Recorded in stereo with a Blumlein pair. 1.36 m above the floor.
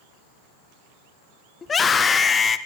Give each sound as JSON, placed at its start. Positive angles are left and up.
{"t": 1.6, "sound": "a scream", "azimuth_deg": 15, "distance_m": 0.8}